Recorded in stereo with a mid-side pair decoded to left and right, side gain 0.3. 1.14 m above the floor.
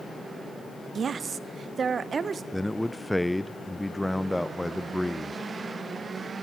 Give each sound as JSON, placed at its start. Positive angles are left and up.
{"t": 0.9, "sound": "a woman speaking", "azimuth_deg": -65, "distance_m": 0.9}
{"t": 2.5, "sound": "a man speaking", "azimuth_deg": 10, "distance_m": 0.6}